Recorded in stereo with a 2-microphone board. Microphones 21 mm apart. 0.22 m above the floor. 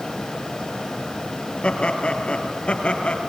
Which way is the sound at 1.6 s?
60° left (ahead or behind).